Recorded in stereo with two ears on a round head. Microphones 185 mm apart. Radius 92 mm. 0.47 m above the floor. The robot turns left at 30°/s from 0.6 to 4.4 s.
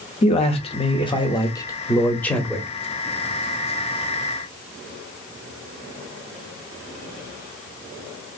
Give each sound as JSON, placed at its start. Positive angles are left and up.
{"t": 0.2, "sound": "a man speaking", "azimuth_deg": 65, "distance_m": 0.9}